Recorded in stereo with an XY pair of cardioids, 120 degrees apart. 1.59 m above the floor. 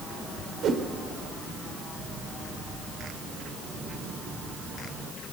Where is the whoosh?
60° right, 1.5 m.